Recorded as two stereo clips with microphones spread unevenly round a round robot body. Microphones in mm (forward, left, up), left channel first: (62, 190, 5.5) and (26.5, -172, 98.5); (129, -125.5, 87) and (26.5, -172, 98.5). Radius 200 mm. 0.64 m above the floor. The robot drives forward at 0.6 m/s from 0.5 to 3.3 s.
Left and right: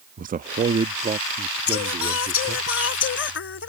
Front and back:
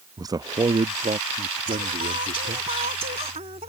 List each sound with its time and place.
0.2 s a man speaking: 170° right; by 2.7 s straight behind
1.7 s singing: 140° left; by 3.7 s 145° left